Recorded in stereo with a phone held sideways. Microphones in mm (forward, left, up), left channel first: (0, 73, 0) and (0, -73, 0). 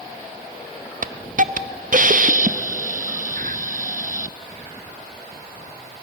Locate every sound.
1.0 s a hiss: 60° right (ahead or behind), 0.7 m